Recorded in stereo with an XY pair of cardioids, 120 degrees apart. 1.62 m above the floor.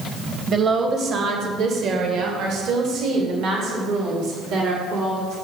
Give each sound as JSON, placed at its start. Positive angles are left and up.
{"t": 0.5, "sound": "a woman speaking", "azimuth_deg": -50, "distance_m": 1.4}